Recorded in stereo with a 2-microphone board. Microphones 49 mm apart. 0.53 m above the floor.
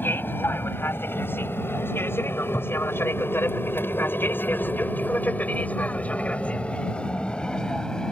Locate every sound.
0.0 s an aircraft: 50° left (ahead or behind); by 8.1 s 15° left (ahead or behind)